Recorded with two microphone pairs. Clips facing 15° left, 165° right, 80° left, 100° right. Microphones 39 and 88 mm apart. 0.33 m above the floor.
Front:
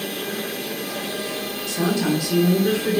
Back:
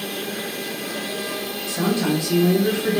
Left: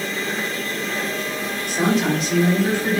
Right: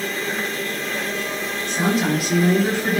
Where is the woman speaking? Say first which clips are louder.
Even, left 1 dB; 155° left, 1.1 m; by 3.0 s 145° right, 1.5 m.